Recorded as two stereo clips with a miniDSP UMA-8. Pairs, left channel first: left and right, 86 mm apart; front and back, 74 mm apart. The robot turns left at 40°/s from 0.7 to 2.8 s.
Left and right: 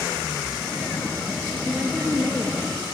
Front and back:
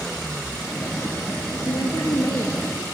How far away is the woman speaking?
About 3 m.